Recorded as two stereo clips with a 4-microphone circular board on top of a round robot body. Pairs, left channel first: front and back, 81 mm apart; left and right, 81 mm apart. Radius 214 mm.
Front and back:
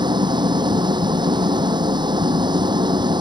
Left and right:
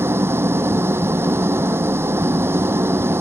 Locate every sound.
0.0 s an engine running: 150° right